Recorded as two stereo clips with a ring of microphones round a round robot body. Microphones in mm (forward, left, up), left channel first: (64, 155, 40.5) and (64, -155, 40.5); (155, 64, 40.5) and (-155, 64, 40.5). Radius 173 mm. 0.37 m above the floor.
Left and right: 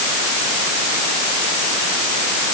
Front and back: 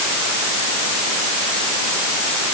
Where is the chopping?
No chopping in this recording.